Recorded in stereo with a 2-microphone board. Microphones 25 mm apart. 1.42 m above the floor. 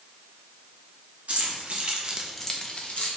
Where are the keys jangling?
60° right (ahead or behind), 1.0 m; by 3.1 s 55° left (ahead or behind), 0.9 m.